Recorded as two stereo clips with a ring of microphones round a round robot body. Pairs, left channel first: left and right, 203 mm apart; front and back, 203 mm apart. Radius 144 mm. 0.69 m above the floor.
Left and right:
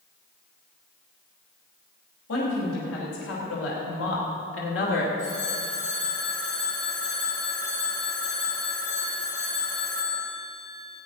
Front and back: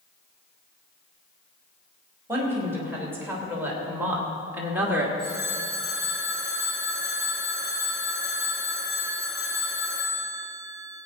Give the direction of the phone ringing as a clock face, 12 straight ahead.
11 o'clock.